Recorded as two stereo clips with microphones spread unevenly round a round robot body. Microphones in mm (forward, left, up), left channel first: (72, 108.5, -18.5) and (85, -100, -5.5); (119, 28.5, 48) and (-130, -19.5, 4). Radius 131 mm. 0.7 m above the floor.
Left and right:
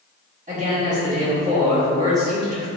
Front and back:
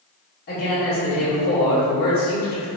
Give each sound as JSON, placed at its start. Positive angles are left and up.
{"t": 0.5, "sound": "a man speaking", "azimuth_deg": -40, "distance_m": 1.5}